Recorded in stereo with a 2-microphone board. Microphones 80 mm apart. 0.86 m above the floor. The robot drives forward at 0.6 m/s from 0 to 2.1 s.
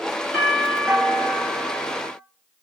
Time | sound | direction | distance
0.3 | a doorbell | 5° right (ahead or behind) | 1.9 m